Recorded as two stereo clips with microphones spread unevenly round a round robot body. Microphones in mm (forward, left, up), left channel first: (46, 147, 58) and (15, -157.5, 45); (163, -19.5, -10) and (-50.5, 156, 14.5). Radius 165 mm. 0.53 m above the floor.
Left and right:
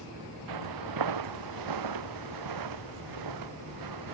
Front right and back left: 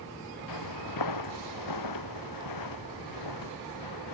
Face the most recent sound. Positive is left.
turn(degrees=-75)